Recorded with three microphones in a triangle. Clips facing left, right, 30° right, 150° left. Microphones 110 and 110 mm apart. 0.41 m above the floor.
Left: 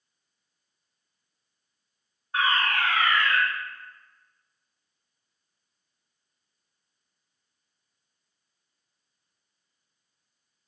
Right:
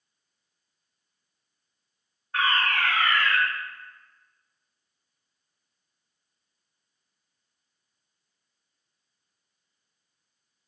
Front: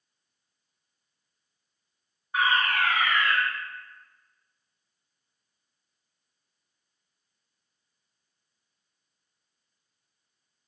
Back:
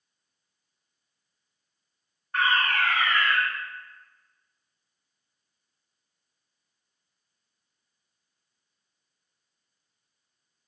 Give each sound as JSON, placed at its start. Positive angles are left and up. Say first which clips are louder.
{"t": 2.3, "sound": "a fire alarm", "louder": "even, even", "azimuth_deg": 30, "distance_m": 1.8}